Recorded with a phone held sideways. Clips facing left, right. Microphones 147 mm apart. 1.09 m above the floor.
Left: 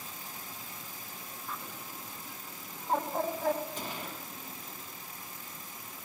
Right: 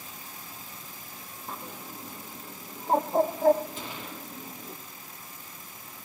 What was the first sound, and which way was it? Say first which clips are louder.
A bird: right 4 dB; 40° right (ahead or behind).